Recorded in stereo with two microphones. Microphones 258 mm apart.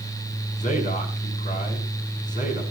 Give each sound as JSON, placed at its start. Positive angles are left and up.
{"t": 0.6, "sound": "a man speaking", "side_deg": 30, "distance_m": 5.5}